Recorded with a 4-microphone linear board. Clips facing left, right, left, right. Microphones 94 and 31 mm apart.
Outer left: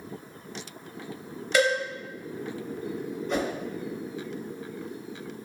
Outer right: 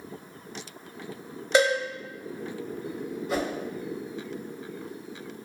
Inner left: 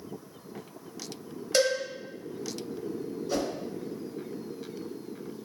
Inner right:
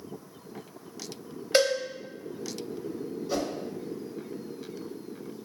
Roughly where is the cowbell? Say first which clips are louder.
Outer right 2 dB, inner right 2 dB; right.